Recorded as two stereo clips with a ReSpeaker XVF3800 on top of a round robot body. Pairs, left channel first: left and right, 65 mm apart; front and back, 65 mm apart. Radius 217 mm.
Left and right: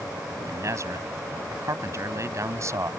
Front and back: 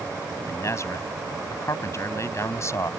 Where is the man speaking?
45° right.